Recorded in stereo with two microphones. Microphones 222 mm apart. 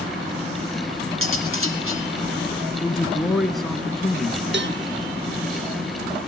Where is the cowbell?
55° right (ahead or behind), 0.8 m.